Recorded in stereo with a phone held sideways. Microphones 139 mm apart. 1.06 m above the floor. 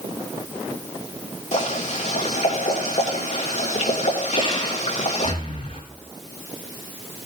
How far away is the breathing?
About 3 m.